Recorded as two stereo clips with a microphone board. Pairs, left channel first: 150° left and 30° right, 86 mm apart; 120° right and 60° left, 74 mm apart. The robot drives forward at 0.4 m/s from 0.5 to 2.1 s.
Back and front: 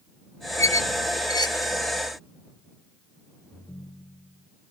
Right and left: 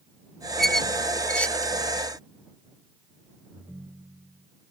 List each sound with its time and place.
0.6 s a squeak: 155° left; by 1.7 s 170° left
3.5 s a ringtone: 120° left